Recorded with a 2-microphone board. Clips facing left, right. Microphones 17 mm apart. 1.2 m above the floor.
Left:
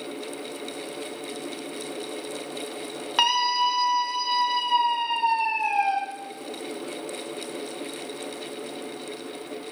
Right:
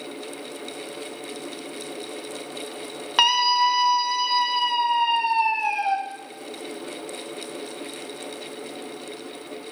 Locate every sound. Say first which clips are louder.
3.2 s a scream: right 3 dB; 10° right (ahead or behind), 1.2 m